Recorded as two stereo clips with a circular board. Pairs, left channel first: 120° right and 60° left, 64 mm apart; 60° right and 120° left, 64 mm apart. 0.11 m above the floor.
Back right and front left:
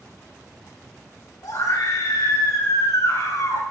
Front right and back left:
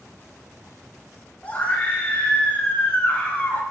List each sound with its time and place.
1.4 s a scream: 125° right, 7 m